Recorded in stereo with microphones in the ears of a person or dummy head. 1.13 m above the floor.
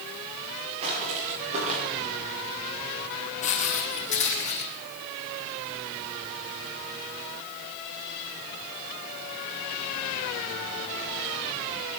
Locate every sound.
0.8 s footsteps: 35° right (ahead or behind), 6.5 m; by 1.8 s 40° right (ahead or behind), 6.5 m
3.4 s footsteps: 35° left (ahead or behind), 2.0 m